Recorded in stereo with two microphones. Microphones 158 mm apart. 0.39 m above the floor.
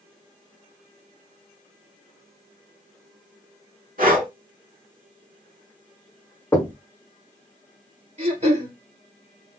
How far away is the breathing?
About 1.3 m.